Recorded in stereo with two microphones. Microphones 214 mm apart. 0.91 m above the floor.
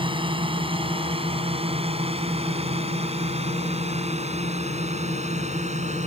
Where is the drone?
25° right (ahead or behind); by 6.1 s 30° right (ahead or behind).